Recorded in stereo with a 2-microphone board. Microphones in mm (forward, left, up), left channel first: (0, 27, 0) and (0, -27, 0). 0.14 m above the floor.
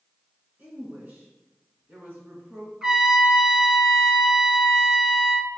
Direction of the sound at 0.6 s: 30° right (ahead or behind).